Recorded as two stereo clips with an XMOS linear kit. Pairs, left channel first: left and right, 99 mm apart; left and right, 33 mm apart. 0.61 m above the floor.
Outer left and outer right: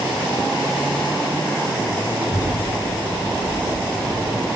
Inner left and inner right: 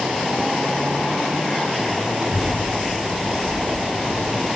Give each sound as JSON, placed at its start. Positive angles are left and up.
{"t": 2.2, "sound": "a child speaking", "side_deg": -20, "distance_m": 8.0}